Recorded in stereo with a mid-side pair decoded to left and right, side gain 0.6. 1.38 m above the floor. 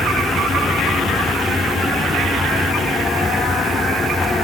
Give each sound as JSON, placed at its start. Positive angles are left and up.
{"t": 0.0, "sound": "a fan", "azimuth_deg": 15}